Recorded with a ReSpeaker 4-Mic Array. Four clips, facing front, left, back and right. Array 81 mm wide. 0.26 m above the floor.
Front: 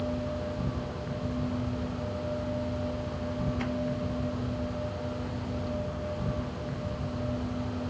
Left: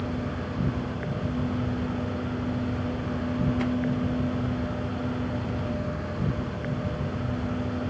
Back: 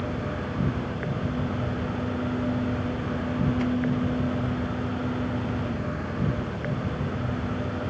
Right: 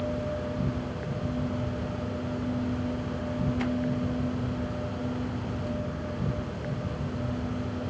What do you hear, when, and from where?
0.0 s an insect: 165° left, 2.5 m